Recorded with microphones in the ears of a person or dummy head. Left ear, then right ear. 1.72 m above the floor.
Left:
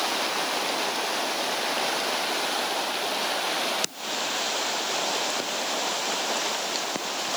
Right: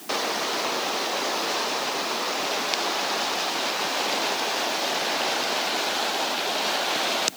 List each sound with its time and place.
Only background noise.